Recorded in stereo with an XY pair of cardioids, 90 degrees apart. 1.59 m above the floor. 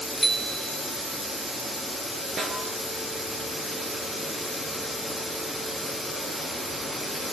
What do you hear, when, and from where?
0.2 s a bicycle bell: 5° right, 4 m
2.4 s a snare drum: 55° right, 8.5 m